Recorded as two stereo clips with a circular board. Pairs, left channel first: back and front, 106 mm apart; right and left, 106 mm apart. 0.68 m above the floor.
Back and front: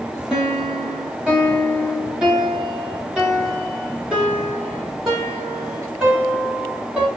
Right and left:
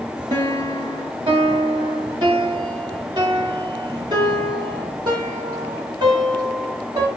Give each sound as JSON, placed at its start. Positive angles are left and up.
{"t": 0.3, "sound": "a piano", "azimuth_deg": 80, "distance_m": 1.4}